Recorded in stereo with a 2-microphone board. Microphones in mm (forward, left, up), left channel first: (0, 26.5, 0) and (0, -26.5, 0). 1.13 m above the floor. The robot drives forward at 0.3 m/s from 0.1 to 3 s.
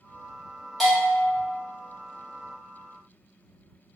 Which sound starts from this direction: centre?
A bell, at 0.8 s.